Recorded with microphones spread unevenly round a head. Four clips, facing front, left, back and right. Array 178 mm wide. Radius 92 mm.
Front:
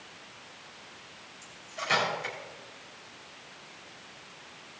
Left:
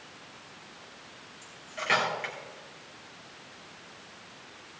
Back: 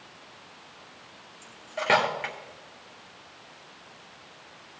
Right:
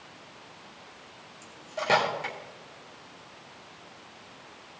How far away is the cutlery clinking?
About 1.8 m.